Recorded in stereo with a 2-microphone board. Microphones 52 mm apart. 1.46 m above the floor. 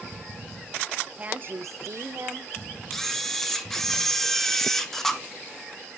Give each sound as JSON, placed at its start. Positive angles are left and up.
{"t": 1.2, "sound": "a woman speaking", "side_deg": -30, "distance_m": 1.0}
{"t": 2.9, "sound": "a camera shutter", "side_deg": 5, "distance_m": 0.9}